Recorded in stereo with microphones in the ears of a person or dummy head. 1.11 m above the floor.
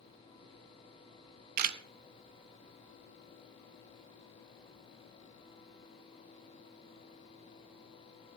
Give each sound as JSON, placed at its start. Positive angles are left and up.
{"t": 1.6, "sound": "a camera shutter", "side_deg": -50, "distance_m": 0.8}